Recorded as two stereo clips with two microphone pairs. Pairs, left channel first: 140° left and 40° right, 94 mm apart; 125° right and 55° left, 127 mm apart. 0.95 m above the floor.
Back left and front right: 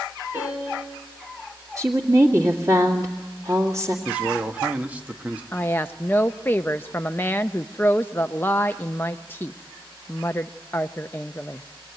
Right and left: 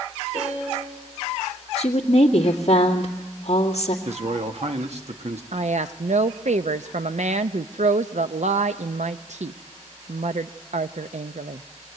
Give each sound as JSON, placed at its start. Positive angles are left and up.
{"t": 0.3, "sound": "a piano", "azimuth_deg": 25, "distance_m": 7.0}
{"t": 1.8, "sound": "a woman speaking", "azimuth_deg": -90, "distance_m": 2.0}
{"t": 4.0, "sound": "a man speaking", "azimuth_deg": 35, "distance_m": 1.3}
{"t": 5.5, "sound": "a woman speaking", "azimuth_deg": 70, "distance_m": 0.5}